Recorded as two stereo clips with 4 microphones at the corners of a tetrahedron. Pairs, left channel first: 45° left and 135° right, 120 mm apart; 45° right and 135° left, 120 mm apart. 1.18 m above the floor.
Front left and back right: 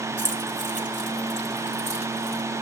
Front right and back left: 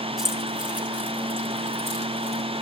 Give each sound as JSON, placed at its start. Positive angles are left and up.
{"t": 0.2, "sound": "keys jangling", "azimuth_deg": -140, "distance_m": 3.5}